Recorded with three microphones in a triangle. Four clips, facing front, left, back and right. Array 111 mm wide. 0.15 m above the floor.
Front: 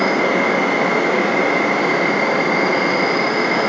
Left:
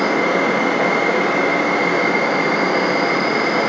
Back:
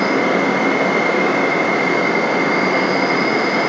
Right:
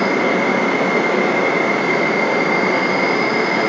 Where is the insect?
85° left, 1.3 m.